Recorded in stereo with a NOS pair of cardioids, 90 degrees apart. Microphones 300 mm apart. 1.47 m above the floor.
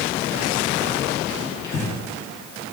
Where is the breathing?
70° left, 2 m.